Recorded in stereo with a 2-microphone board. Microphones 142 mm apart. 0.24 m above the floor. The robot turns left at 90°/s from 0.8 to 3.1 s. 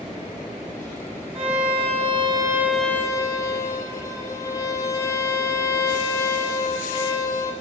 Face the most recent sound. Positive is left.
turn(degrees=150)